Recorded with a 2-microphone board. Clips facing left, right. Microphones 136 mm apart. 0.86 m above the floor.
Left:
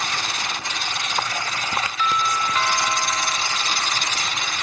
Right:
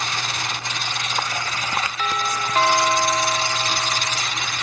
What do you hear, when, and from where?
2.0 s a doorbell: 50° right (ahead or behind)